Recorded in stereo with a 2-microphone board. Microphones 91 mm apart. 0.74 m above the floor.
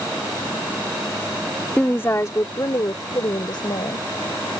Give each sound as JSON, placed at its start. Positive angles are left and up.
{"t": 1.8, "sound": "a woman speaking", "side_deg": 15}